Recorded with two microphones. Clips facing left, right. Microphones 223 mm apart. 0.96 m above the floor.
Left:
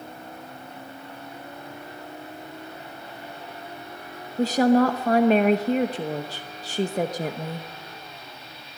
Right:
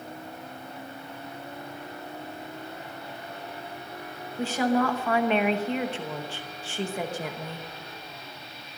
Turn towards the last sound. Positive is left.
turn(degrees=40)  # may be behind; listen again after turning